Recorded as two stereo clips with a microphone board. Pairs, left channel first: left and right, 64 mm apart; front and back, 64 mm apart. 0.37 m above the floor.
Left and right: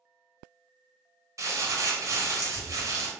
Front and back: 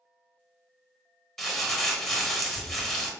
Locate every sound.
1.4 s crumpling: 80° right, 0.9 m